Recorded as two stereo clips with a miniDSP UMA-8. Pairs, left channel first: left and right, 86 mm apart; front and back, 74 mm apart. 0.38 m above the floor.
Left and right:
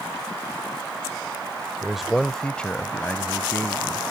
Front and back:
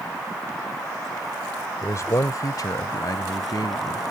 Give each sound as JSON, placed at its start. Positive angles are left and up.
{"t": 1.8, "sound": "a man speaking", "azimuth_deg": -10}